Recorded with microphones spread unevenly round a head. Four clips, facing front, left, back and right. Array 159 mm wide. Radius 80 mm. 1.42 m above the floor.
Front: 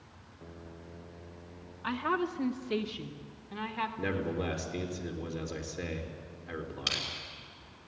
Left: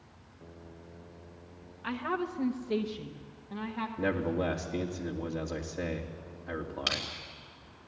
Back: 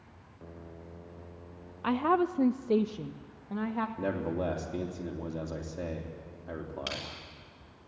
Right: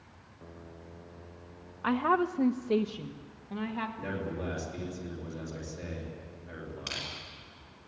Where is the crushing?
115° left, 5.5 m.